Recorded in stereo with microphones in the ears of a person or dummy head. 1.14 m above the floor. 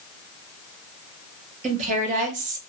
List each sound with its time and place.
1.6 s a woman speaking: 40° right (ahead or behind), 1.1 m